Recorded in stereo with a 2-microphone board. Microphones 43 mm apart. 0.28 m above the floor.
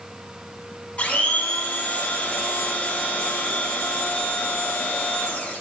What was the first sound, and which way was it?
A blender, 30° left (ahead or behind).